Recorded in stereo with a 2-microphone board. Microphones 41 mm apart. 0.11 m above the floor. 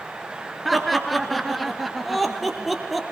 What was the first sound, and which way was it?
Laughter, centre (ahead or behind).